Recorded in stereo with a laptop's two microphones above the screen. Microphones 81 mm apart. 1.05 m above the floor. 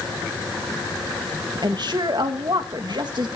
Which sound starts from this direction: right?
A woman speaking, at 1.6 s.